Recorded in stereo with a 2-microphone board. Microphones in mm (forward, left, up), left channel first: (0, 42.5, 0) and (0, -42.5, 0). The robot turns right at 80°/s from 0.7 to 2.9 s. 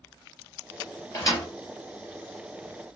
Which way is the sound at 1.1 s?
35° left (ahead or behind).